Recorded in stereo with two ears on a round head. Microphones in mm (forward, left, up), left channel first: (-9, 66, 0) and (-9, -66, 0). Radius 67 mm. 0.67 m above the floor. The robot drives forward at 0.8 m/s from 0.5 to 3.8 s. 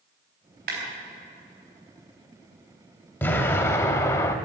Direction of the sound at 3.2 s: 15° left (ahead or behind).